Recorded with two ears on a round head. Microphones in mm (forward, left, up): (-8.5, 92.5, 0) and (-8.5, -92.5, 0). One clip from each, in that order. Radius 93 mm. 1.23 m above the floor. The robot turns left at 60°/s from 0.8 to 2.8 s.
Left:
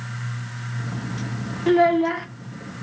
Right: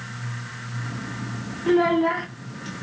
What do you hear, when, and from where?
1.7 s a child speaking: 55° left, 0.6 m; by 2.3 s 20° left, 0.6 m